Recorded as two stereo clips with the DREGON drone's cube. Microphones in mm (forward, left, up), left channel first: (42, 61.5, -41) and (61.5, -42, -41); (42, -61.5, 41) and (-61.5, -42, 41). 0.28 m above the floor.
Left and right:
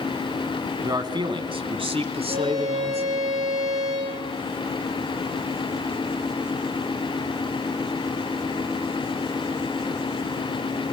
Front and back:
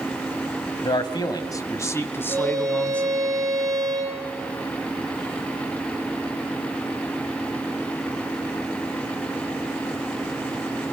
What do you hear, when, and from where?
0.8 s a man speaking: 35° right, 1.5 m; by 3.3 s 90° right, 3 m
2.3 s a violin: 135° right, 9 m